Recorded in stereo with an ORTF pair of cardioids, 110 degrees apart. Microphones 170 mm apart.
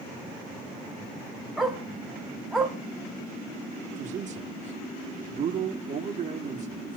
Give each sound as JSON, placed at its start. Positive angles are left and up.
{"t": 1.6, "sound": "a dog barking", "azimuth_deg": 0, "distance_m": 2.5}
{"t": 3.9, "sound": "a man speaking", "azimuth_deg": -45, "distance_m": 2.5}